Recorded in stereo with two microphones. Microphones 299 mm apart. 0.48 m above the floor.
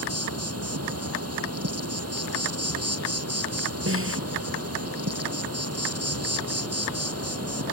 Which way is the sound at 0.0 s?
55° right (ahead or behind).